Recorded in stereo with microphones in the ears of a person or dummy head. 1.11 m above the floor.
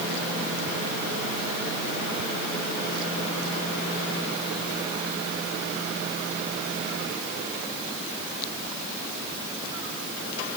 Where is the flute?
No flute in this recording.